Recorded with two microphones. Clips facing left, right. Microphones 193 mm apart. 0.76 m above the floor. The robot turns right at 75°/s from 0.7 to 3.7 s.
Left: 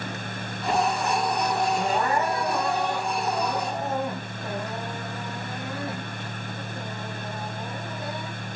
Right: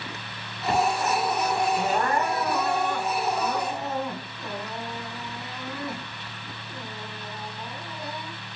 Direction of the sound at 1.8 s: 15° right.